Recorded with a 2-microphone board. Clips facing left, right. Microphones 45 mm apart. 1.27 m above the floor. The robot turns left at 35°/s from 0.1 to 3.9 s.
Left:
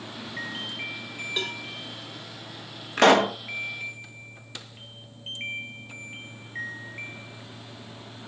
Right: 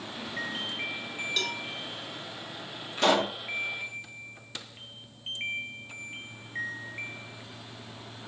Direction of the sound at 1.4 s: 20° left (ahead or behind).